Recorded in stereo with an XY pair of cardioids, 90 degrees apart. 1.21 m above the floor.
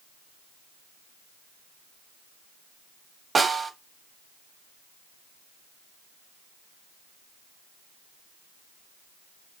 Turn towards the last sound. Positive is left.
turn(degrees=-35)